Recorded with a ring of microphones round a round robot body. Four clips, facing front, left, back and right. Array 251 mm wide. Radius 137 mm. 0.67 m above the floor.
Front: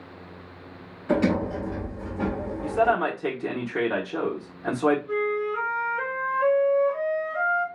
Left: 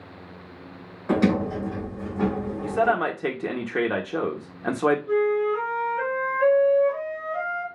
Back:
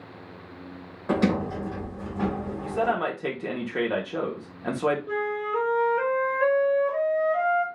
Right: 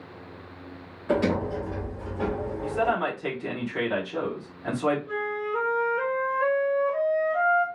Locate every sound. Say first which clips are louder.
1.1 s a sliding door: left 3 dB, front 1 dB; 145° left, 3 m
2.6 s a man speaking: left 3 dB, front 4 dB; 90° left, 1.3 m
5.1 s a flute: left 8 dB, front 2 dB; straight behind, 1.7 m